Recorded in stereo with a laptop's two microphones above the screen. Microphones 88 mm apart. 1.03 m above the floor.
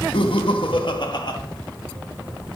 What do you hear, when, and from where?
0.1 s laughter: 75° left (ahead or behind), 1.2 m; by 1.4 s 55° left (ahead or behind), 1.7 m